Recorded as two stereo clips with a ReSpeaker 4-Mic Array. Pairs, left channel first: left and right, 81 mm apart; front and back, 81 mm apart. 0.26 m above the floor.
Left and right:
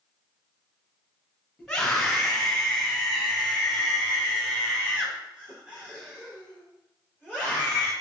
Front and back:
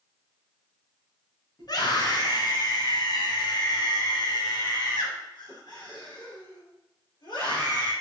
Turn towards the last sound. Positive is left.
turn(degrees=-15)